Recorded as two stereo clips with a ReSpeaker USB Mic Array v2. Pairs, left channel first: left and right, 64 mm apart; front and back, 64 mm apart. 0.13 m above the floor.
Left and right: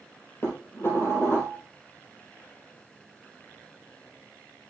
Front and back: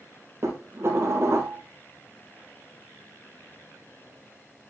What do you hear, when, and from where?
0.4 s dishes clattering: 140° left, 3 m